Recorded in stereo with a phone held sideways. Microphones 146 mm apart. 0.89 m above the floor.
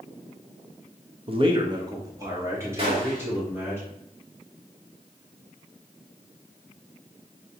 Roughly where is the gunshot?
Right.